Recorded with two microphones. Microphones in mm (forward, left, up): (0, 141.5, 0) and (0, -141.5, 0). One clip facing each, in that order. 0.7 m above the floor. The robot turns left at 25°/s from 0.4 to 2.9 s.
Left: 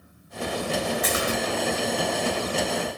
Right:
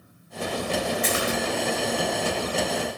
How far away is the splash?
About 3.5 m.